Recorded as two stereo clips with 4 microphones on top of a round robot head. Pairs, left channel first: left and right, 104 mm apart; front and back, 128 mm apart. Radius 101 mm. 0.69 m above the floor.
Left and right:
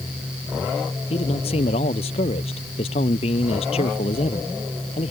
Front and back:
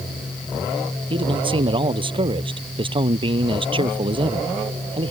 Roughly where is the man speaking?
Behind left.